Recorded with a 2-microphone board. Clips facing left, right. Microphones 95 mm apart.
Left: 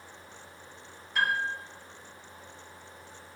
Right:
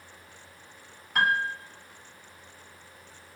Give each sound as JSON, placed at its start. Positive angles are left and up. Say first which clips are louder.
{"t": 1.1, "sound": "a piano", "louder": "right 3 dB", "side_deg": -70, "distance_m": 1.9}